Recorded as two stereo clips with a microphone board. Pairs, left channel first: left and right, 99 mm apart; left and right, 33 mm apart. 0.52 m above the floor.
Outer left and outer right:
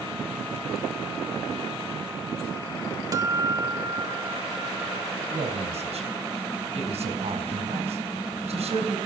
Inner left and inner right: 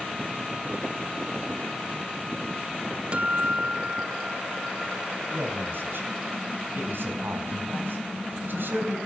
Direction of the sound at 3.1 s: 35° right (ahead or behind).